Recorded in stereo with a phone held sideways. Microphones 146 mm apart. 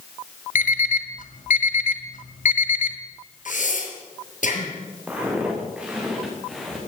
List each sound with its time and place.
0.6 s an alarm clock: 70° left (ahead or behind), 2.5 m
3.5 s breathing: 70° left (ahead or behind), 6 m
5.1 s footsteps: 10° right (ahead or behind), 7 m; by 6.8 s centre (ahead or behind), 7 m